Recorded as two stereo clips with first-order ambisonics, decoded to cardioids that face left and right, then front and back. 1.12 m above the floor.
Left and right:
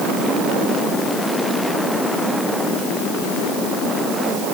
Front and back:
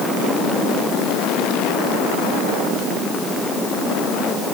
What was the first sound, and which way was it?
Only background noise.